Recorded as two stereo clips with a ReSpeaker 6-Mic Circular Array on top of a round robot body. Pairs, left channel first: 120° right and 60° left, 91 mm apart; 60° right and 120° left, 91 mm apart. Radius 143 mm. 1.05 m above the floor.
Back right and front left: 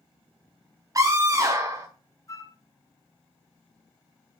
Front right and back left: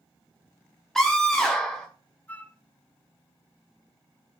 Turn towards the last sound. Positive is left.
turn(degrees=-120)